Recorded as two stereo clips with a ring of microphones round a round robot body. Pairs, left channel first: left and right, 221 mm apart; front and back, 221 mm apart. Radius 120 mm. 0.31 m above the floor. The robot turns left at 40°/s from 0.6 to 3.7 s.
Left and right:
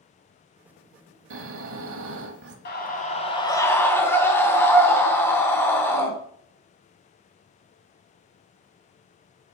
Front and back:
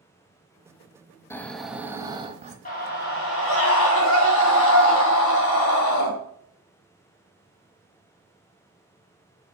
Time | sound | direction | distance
1.3 | snoring | 75° right | 1.1 m
2.6 | a scream | 55° left | 3 m